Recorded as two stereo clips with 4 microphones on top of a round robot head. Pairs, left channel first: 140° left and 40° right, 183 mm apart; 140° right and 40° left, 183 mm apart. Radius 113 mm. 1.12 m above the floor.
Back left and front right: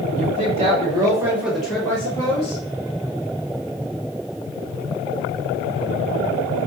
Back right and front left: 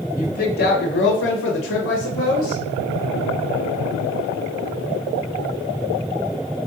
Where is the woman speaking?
90° right, 1.2 m; by 2.6 s 160° right, 1.3 m.